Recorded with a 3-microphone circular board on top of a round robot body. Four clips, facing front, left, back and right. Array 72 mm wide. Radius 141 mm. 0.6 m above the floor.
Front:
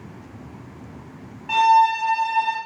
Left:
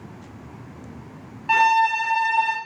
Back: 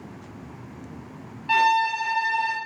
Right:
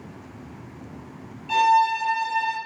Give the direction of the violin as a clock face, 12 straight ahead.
9 o'clock.